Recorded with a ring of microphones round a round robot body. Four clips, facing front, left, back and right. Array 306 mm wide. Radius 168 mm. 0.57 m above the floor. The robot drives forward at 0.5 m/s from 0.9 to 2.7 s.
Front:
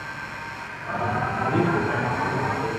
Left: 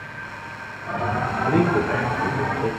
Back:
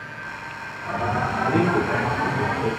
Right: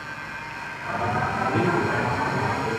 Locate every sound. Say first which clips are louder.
1.5 s a man speaking: left 5 dB, back 2 dB; 95° left, 6.5 m; by 2.7 s 100° left, 6.5 m